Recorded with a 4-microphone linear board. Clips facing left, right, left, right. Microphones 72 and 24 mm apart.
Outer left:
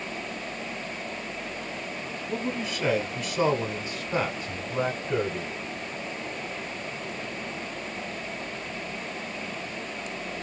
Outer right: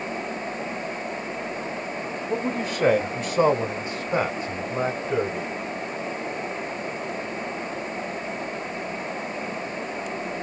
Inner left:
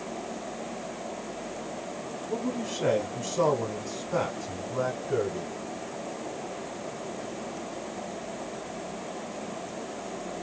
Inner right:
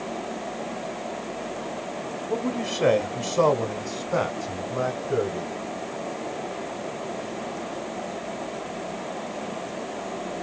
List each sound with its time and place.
2.3 s a man speaking: 45° right (ahead or behind), 1.1 m; by 5.5 s centre (ahead or behind), 1.8 m